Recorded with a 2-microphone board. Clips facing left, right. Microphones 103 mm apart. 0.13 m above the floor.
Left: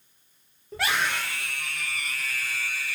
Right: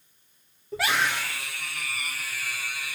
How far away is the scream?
About 4.5 m.